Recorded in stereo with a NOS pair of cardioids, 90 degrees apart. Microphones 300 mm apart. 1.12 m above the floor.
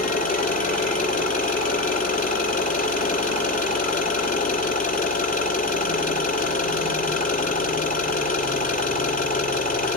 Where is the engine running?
25° left, 7 m.